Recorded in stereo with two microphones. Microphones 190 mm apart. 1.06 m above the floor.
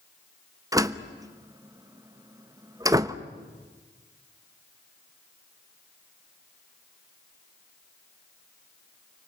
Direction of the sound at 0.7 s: 20° right (ahead or behind).